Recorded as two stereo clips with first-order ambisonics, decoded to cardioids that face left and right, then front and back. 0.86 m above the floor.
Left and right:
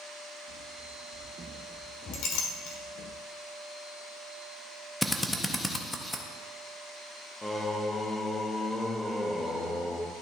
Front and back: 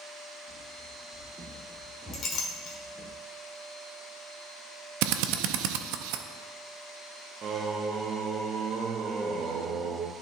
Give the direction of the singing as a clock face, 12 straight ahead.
7 o'clock.